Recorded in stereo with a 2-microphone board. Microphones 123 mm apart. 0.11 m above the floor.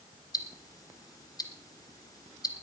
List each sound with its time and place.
0.3 s ticking: 30° left (ahead or behind), 1.9 m